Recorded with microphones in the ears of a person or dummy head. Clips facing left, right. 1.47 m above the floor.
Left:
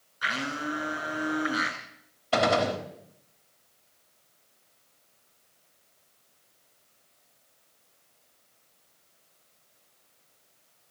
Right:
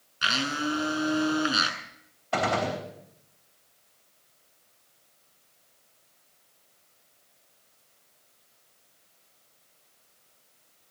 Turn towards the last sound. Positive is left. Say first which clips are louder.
# left 3 dB
turn(degrees=50)  # may be behind; listen again after turning